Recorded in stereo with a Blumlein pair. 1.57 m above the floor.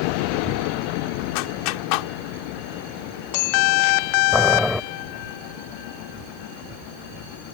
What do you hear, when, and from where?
1.4 s a clap: 45° left
4.3 s boiling: straight ahead